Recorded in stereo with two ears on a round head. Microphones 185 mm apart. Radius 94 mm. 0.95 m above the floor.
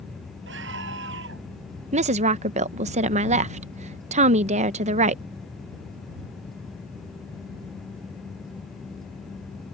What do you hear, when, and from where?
0.5 s a scream: 55° right (ahead or behind)
1.9 s a woman speaking: 35° right (ahead or behind)